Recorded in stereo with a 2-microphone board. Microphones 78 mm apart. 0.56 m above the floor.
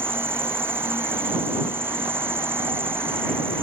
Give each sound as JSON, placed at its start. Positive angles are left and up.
{"t": 0.0, "sound": "an insect", "side_deg": -25}